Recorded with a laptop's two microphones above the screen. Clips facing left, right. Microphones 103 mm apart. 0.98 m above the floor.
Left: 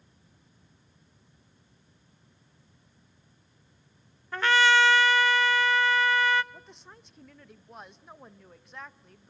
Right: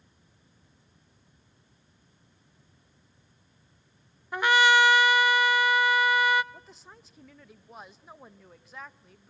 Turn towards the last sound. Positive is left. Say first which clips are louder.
# even
turn(degrees=0)  # may be behind; listen again after turning